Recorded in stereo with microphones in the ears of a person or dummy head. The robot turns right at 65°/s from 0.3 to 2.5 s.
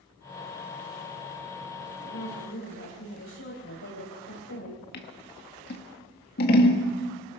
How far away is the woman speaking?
About 10 m.